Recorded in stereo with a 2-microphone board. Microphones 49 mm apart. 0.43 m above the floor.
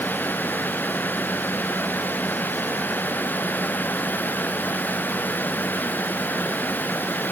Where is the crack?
I don't hear a crack.